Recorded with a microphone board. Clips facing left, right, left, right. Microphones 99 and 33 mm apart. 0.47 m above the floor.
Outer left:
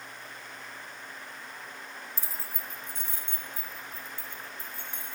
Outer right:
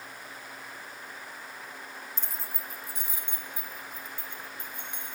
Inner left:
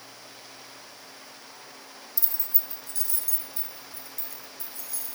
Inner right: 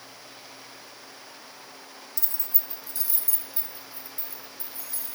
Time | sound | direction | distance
2.2 | keys jangling | 10° left (ahead or behind) | 0.7 m